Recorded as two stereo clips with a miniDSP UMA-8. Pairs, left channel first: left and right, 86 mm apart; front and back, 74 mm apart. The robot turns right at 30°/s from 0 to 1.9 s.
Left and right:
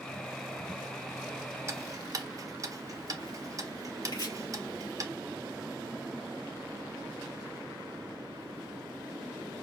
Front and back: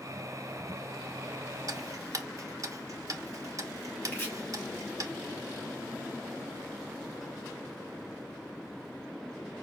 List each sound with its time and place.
1.7 s ticking: 145° right, 0.5 m; by 5.1 s 140° right, 0.5 m
4.1 s chopping: 65° left, 2.5 m